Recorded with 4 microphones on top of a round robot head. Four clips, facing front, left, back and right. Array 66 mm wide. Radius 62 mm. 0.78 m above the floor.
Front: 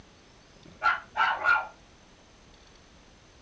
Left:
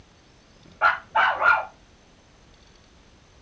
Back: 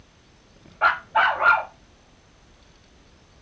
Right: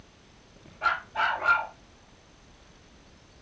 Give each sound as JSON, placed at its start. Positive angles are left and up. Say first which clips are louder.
{"t": 0.8, "sound": "a dog barking", "louder": "left 7 dB, back 6 dB", "azimuth_deg": 140, "distance_m": 1.0}